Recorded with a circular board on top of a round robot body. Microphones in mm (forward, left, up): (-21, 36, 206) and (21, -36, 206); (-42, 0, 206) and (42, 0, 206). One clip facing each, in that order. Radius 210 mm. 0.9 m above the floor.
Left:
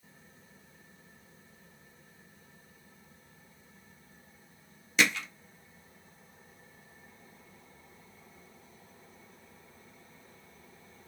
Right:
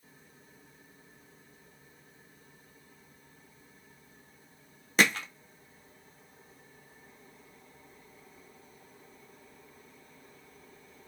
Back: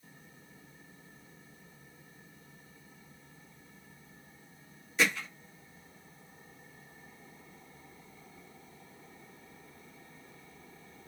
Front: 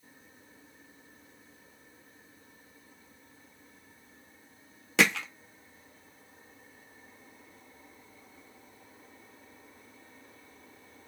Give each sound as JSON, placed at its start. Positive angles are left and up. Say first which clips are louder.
{"t": 5.0, "sound": "hammering", "louder": "right 2 dB, front 4 dB", "azimuth_deg": -10, "distance_m": 0.6}